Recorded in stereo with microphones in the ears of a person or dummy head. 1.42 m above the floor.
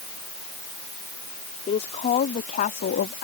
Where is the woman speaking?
30° left (ahead or behind); by 3.2 s 55° left (ahead or behind).